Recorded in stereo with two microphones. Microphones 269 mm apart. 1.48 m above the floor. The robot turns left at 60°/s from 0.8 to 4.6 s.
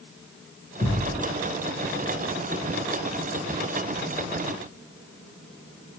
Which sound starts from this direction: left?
A thud, at 0.8 s.